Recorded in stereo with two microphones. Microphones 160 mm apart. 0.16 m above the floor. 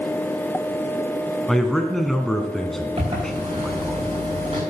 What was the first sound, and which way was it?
A man speaking, centre (ahead or behind).